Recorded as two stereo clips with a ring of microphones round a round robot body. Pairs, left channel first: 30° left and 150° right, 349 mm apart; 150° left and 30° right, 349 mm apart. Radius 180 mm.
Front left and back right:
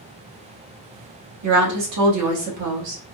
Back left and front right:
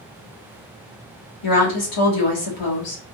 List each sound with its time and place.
1.4 s a woman speaking: 170° left, 1.4 m